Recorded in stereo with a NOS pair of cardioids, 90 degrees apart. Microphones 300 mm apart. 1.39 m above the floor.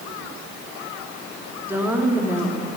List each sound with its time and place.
1.6 s a woman speaking: 5° right, 3 m